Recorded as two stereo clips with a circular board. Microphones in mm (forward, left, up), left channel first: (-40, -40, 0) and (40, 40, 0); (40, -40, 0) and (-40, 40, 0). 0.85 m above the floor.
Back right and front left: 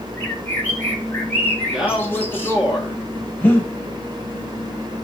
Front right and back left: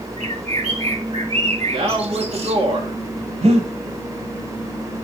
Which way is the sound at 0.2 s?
155° left.